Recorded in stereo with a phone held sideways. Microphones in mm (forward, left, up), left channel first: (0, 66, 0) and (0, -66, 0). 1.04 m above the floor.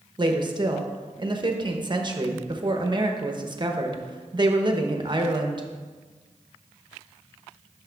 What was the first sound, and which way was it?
A woman speaking, 35° right (ahead or behind).